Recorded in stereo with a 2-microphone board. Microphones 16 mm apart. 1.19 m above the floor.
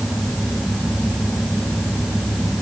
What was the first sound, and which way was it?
Only background noise.